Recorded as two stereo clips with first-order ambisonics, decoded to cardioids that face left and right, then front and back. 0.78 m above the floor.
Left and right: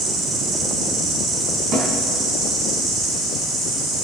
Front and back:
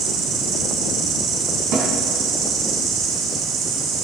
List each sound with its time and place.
0.0 s an insect: 150° right, 2.5 m
1.7 s a snare drum: 140° right, 3 m